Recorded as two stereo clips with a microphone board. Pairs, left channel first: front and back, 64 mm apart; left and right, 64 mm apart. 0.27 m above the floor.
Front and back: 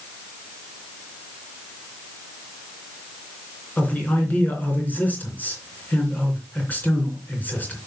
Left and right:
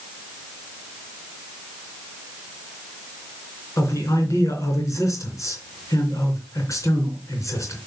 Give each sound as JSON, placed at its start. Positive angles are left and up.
{"t": 3.8, "sound": "a man speaking", "azimuth_deg": 65, "distance_m": 3.0}